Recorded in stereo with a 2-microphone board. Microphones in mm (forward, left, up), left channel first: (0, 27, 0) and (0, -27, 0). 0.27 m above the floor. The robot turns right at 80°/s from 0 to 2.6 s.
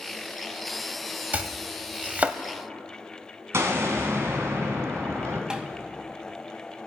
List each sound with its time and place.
1.3 s chopping: 30° right (ahead or behind), 0.7 m; by 2.4 s 25° right (ahead or behind), 0.7 m
3.5 s an explosion: 60° right (ahead or behind), 2 m
5.5 s tapping: 15° right (ahead or behind), 0.9 m